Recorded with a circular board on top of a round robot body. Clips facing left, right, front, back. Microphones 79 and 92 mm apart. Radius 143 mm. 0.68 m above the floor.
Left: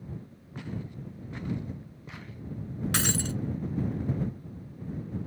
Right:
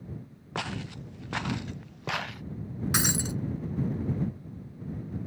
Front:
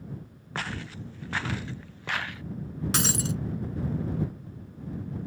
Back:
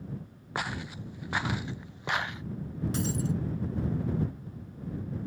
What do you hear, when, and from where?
0.6 s footsteps: 105° right; by 2.4 s 110° right
2.9 s breaking glass: 15° right